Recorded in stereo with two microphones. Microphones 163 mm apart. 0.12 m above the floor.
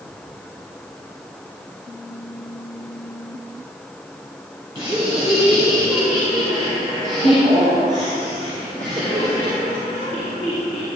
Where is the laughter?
30° right (ahead or behind), 3.5 m; by 10.9 s 60° right (ahead or behind), 7.5 m.